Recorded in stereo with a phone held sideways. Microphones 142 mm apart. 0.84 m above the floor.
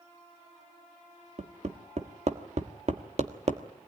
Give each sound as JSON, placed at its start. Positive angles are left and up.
{"t": 1.4, "sound": "hammering", "side_deg": -50, "distance_m": 1.3}